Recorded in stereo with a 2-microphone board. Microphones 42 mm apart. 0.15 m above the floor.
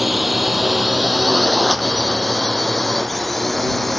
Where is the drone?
Centre (ahead or behind); by 4.0 s 5° left (ahead or behind).